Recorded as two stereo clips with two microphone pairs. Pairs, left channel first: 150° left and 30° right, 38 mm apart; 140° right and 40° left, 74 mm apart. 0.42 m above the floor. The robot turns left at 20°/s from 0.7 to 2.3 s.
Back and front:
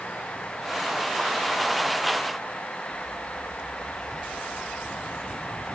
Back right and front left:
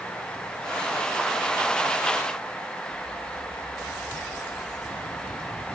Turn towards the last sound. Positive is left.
No sound to turn to.